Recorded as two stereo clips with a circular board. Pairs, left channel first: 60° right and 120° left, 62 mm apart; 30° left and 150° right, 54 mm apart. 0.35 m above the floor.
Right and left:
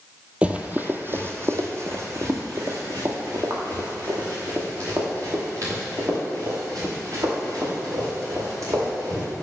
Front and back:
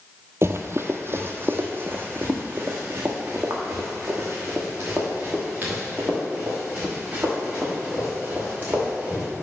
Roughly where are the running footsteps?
Behind.